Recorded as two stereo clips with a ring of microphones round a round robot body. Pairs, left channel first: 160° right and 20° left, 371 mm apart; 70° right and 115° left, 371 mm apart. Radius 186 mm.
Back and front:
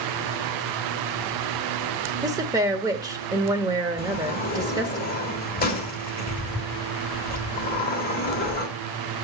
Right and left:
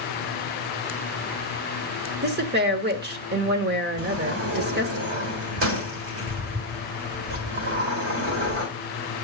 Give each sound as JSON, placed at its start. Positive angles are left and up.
{"t": 2.2, "sound": "a woman speaking", "azimuth_deg": 90, "distance_m": 0.8}
{"t": 4.0, "sound": "a sliding door", "azimuth_deg": 145, "distance_m": 1.5}